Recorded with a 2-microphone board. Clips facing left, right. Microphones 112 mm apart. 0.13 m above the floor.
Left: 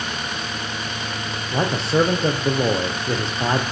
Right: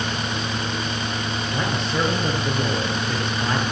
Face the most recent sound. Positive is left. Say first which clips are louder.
# left 7 dB
turn(degrees=35)  # may be behind; listen again after turning